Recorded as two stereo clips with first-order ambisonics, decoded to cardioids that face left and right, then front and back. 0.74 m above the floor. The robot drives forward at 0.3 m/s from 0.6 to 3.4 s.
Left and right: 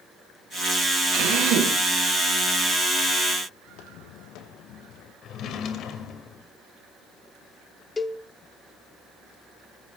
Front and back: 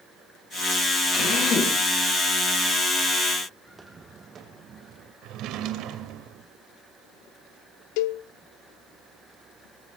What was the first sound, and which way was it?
A drill, 55° right.